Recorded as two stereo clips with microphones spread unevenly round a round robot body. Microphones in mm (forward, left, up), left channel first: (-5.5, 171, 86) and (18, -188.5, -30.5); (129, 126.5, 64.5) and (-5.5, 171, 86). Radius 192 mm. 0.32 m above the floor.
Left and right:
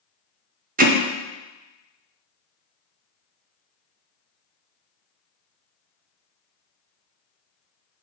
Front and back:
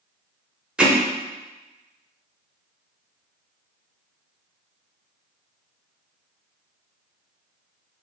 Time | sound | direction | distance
0.8 | hammering | 105° right | 0.9 m